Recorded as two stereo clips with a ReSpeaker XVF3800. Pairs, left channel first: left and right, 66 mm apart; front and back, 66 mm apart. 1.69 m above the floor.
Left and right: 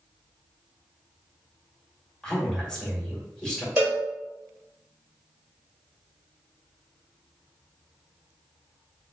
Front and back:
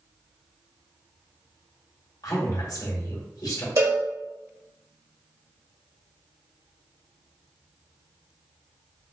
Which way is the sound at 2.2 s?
15° left.